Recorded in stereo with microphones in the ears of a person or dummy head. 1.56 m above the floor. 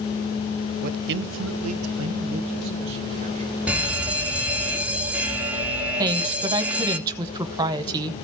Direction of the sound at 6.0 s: 20° right (ahead or behind).